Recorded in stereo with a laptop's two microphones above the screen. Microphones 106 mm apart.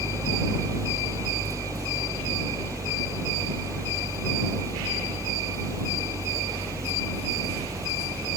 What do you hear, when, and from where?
0.0 s a fan: 30° right (ahead or behind)